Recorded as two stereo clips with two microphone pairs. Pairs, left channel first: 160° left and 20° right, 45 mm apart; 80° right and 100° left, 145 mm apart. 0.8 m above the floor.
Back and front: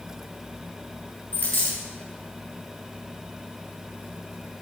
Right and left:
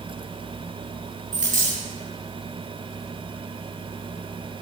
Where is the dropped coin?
110° left, 3 m.